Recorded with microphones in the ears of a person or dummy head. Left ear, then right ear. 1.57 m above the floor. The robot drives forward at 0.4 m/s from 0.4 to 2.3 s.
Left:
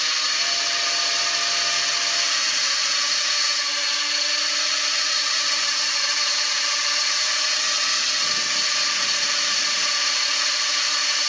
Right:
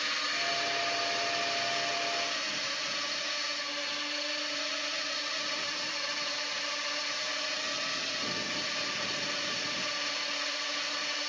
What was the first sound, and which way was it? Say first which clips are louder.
A drone: left 9 dB; 45° left (ahead or behind).